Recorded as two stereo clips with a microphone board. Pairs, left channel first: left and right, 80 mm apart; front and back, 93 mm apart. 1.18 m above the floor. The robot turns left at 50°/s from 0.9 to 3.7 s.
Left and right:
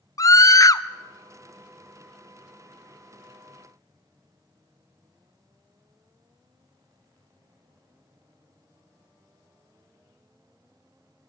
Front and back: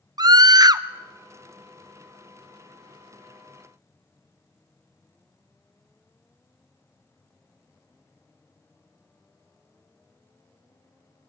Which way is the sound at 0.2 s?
130° left.